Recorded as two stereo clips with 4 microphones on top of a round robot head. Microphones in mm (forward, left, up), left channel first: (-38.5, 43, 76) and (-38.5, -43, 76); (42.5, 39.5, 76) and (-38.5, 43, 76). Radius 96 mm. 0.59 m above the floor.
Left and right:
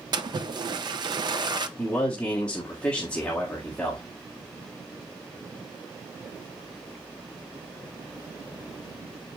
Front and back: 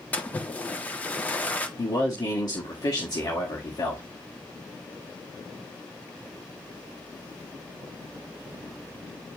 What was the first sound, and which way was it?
A splash, 70° right.